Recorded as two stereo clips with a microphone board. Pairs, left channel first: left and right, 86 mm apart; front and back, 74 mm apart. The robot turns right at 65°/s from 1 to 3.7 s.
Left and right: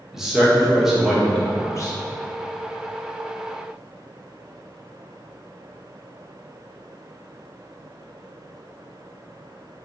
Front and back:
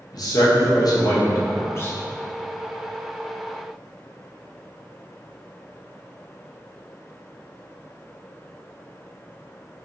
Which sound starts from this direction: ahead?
A man speaking, at 0.1 s.